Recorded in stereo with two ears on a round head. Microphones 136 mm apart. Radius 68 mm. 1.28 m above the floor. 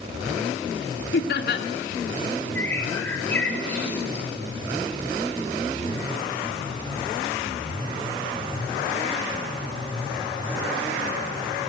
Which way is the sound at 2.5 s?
10° left (ahead or behind).